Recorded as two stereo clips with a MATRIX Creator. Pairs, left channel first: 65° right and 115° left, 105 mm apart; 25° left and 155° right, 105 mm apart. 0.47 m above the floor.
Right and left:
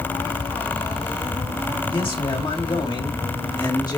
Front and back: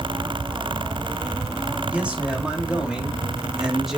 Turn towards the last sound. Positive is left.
turn(degrees=-70)